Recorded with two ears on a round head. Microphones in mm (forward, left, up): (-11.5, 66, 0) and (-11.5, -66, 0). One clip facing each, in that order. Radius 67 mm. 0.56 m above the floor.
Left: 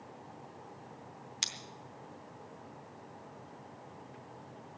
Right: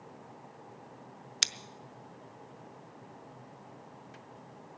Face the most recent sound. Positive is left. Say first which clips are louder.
# right 7 dB
turn(degrees=-65)  # may be behind; listen again after turning